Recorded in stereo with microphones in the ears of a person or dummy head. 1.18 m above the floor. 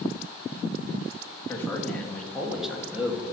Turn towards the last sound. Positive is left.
turn(degrees=-15)  # may be behind; listen again after turning